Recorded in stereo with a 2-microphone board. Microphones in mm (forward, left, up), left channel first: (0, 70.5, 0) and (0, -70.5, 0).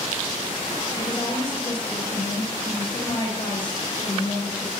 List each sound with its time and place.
0.9 s a woman speaking: 35° left (ahead or behind), 8.5 m